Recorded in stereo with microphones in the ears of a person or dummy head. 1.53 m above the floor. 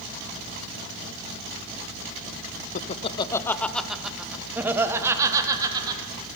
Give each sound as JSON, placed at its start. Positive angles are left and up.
{"t": 2.8, "sound": "laughter", "side_deg": 45, "distance_m": 0.6}